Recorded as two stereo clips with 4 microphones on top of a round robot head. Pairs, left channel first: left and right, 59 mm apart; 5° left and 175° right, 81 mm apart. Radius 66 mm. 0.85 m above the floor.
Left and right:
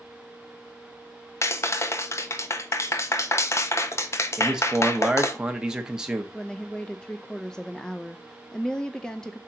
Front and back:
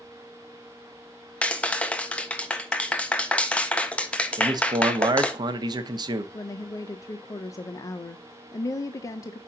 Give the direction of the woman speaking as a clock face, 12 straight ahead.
11 o'clock.